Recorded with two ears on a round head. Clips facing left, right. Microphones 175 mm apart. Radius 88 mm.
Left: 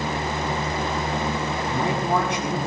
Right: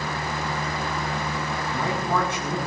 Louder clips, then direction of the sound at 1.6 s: Left 3 dB; 15° left (ahead or behind).